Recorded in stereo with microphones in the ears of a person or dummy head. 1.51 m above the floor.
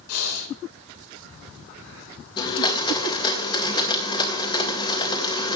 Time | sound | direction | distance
0.1 | breathing | 85° left | 2.5 m
2.4 | a blender | 25° left (ahead or behind) | 1.7 m